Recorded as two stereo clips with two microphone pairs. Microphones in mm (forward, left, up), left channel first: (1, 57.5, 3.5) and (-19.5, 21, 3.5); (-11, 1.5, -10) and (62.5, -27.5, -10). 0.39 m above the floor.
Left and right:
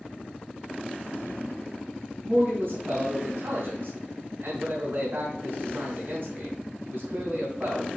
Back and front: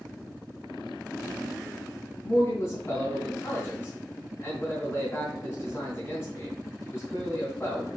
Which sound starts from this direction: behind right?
A man speaking, at 2.2 s.